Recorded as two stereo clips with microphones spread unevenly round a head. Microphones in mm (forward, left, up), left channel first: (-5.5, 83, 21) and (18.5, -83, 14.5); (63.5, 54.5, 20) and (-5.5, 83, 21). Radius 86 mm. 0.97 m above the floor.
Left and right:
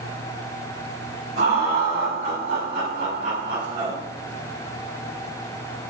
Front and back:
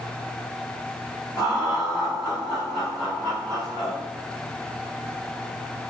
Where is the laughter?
95° right, 4 m; by 4.0 s 130° right, 2.5 m.